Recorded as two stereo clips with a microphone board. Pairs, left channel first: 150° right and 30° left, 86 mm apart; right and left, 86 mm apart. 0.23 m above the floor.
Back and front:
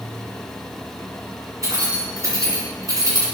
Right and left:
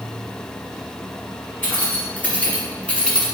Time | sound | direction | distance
1.6 | keys jangling | 20° right | 3 m